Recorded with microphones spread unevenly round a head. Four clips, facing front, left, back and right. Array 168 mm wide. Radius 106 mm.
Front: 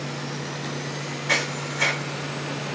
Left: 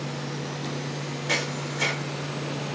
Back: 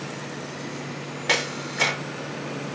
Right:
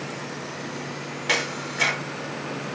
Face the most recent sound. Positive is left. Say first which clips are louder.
# right 3 dB, even
turn(degrees=175)